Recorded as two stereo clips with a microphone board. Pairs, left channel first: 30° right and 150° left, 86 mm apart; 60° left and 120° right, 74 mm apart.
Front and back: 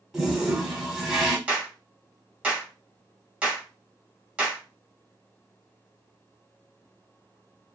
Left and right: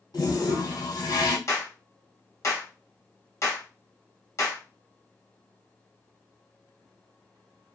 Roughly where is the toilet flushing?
Ahead left.